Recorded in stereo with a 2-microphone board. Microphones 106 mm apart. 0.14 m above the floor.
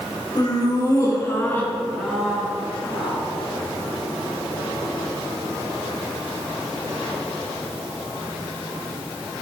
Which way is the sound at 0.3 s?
40° left (ahead or behind).